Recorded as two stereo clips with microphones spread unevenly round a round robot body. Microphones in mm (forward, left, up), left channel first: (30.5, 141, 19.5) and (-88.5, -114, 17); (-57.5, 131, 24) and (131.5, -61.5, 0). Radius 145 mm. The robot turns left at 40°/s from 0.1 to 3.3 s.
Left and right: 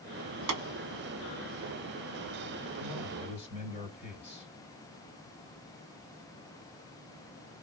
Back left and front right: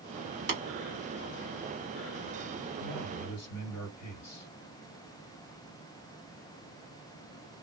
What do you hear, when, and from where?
0.5 s tapping: 110° right, 2 m; by 0.6 s 115° right, 2 m
2.8 s a man speaking: 150° left, 2 m; by 4.5 s 130° left, 2 m